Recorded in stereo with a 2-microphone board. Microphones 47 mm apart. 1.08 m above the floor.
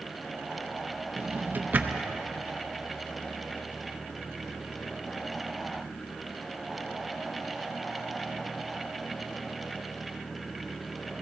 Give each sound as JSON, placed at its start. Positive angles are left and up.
{"t": 1.2, "sound": "a drawer", "side_deg": -40, "distance_m": 0.7}